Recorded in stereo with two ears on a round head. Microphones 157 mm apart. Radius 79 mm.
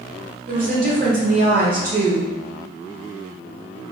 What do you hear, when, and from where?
0.5 s a woman speaking: 50° right (ahead or behind), 1.3 m